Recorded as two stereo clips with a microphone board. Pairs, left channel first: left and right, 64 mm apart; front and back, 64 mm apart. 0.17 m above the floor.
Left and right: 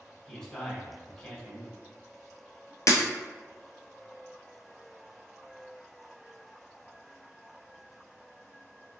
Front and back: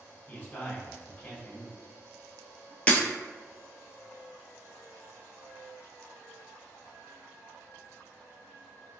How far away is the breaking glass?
About 0.6 m.